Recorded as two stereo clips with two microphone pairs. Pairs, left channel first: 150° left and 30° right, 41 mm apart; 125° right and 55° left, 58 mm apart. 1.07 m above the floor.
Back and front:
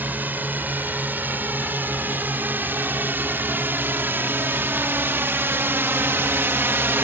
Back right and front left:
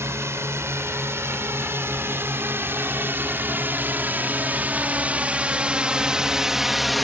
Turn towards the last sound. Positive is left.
turn(degrees=-35)